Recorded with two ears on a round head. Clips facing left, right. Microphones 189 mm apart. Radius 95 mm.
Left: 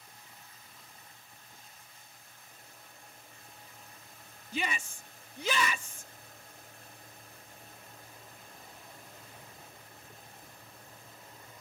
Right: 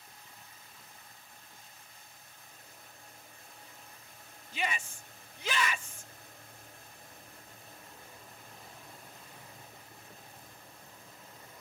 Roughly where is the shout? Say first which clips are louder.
Left 1 dB; left.